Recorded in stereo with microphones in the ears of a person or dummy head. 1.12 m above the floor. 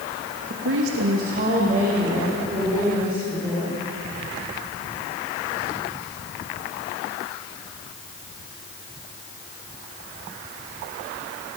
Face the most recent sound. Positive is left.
turn(degrees=-10)  # may be behind; listen again after turning